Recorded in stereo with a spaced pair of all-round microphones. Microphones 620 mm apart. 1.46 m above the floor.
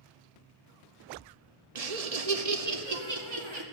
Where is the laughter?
70° right (ahead or behind), 0.9 m; by 3.6 s 45° right (ahead or behind), 1.6 m.